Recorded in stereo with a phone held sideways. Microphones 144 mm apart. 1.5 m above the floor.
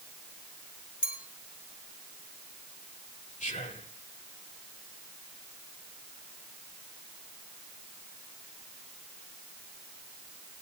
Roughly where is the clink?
Left.